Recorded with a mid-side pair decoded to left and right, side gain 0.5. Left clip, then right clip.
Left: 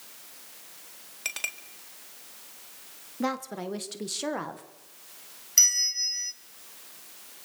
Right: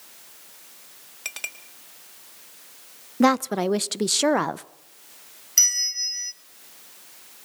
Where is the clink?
5° left, 4.5 m.